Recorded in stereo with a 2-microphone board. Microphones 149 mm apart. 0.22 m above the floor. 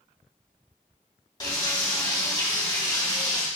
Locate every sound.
1.4 s frying: 25° left (ahead or behind), 1.7 m